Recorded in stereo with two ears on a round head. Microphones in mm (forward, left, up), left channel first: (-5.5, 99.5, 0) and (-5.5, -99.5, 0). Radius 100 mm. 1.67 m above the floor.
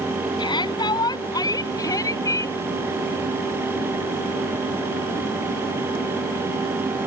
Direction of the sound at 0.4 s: 20° left (ahead or behind).